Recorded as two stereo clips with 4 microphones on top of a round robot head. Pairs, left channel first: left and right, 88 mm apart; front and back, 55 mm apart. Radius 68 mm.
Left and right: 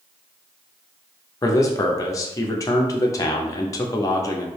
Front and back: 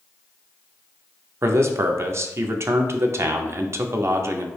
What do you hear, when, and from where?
1.4 s a man speaking: 145° left, 0.5 m